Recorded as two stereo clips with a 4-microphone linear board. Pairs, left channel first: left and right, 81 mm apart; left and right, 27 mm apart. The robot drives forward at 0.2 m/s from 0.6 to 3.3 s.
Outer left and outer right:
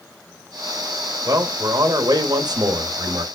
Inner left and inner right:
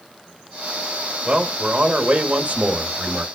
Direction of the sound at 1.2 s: 50° right (ahead or behind).